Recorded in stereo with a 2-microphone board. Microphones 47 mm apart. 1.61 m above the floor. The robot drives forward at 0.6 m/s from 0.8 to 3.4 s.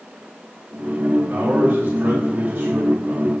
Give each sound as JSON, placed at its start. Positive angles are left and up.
{"t": 1.3, "sound": "a man speaking", "side_deg": -40, "distance_m": 4.0}